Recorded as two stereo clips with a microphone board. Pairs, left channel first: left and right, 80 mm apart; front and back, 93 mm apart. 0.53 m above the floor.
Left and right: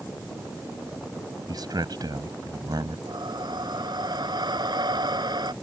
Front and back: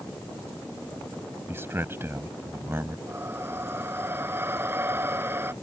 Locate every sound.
1.5 s a man speaking: 115° right
3.1 s breathing: 115° right